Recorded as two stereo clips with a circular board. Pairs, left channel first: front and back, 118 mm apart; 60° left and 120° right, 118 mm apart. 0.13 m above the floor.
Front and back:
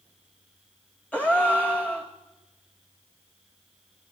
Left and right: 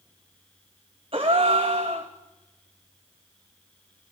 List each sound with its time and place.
1.1 s a gasp: 80° right, 2 m